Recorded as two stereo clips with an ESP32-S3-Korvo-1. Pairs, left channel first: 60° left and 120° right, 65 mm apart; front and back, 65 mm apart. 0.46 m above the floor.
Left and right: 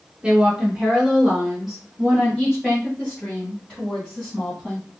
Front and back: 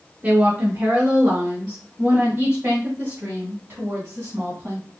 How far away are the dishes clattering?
No dishes clattering in this recording.